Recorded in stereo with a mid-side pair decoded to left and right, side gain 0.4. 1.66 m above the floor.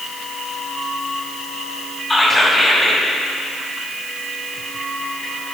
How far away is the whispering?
About 2.0 m.